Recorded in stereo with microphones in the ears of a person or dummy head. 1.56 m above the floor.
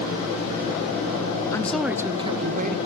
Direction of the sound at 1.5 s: 10° left (ahead or behind).